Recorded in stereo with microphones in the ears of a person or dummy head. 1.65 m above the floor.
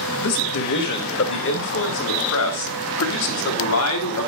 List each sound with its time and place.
0.2 s a man speaking: 50° left (ahead or behind), 2.0 m; by 4.3 s 80° left, 3.5 m